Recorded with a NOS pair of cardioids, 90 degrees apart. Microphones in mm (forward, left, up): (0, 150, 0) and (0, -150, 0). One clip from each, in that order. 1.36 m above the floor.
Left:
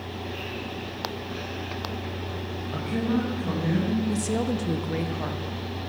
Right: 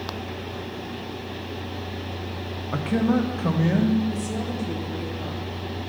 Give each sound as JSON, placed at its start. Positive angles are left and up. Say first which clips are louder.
{"t": 2.7, "sound": "a man speaking", "louder": "right 5 dB", "azimuth_deg": -40, "distance_m": 0.9}
{"t": 4.1, "sound": "a woman speaking", "louder": "left 2 dB", "azimuth_deg": 45, "distance_m": 0.8}